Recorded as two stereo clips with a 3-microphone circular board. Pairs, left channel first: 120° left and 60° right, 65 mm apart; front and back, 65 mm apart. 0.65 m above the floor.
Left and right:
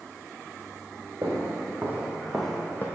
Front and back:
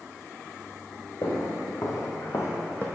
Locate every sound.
1.2 s footsteps: 20° right, 1.9 m; by 2.9 s 70° left, 1.1 m